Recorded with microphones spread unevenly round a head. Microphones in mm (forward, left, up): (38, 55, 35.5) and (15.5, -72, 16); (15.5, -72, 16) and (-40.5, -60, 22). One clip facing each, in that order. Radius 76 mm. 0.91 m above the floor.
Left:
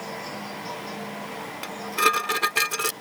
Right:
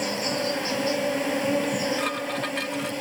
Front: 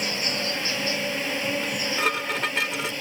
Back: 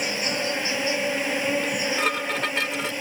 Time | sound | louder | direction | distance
0.0 | an insect | right 8 dB, back 2 dB | 125° right | ?
1.6 | dishes clattering | right 2 dB, back 1 dB | 75° left | ?